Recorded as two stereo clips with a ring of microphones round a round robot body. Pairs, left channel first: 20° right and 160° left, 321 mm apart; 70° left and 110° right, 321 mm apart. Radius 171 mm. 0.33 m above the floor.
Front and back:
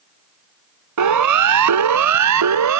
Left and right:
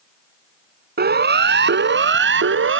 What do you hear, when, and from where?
1.0 s a siren: 175° right; by 2.8 s 165° right